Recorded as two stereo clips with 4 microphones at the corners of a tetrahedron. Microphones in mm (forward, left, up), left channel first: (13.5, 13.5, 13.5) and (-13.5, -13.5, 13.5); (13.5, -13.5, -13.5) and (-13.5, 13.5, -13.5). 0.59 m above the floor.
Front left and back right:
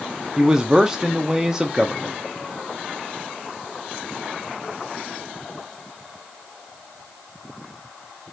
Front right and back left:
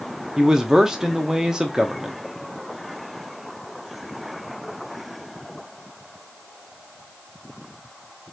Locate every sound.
0.4 s a man speaking: 175° left, 0.7 m